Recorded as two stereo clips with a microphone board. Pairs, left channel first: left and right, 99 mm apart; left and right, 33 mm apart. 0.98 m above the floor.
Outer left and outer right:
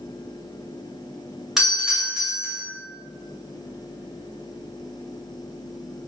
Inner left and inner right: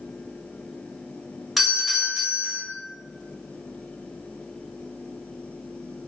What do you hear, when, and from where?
1.6 s a doorbell: 5° right (ahead or behind), 1.3 m